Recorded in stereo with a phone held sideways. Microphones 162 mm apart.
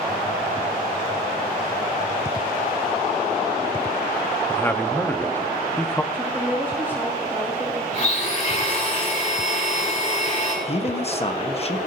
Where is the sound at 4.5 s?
10° left (ahead or behind), 1.0 m.